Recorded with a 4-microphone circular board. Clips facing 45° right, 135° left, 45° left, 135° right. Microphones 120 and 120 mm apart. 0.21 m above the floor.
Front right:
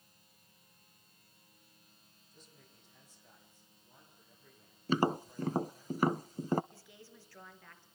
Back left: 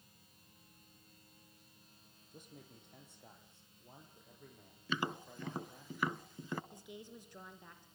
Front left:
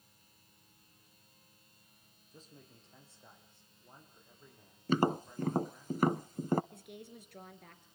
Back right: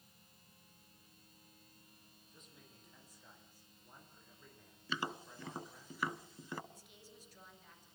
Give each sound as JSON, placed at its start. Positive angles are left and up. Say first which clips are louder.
{"t": 2.3, "sound": "a man speaking", "louder": "back left 7 dB, front left 7 dB", "azimuth_deg": 100, "distance_m": 7.5}
{"t": 4.9, "sound": "tapping", "louder": "front right 9 dB, front left 12 dB", "azimuth_deg": 5, "distance_m": 0.5}
{"t": 6.7, "sound": "a woman speaking", "louder": "back left 5 dB, front left 10 dB", "azimuth_deg": 65, "distance_m": 4.0}